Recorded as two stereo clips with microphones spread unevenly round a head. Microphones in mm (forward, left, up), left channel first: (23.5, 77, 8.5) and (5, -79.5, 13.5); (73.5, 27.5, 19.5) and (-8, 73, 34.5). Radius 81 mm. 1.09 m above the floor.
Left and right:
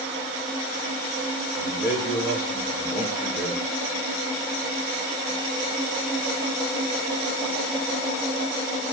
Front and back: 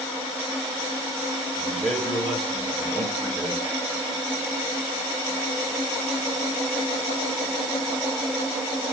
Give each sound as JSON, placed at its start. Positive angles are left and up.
{"t": 1.6, "sound": "a man speaking", "azimuth_deg": 55, "distance_m": 2.5}